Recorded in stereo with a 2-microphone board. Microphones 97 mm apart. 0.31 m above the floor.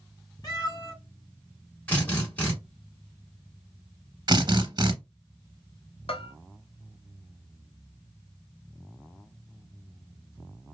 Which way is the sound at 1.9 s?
15° left (ahead or behind).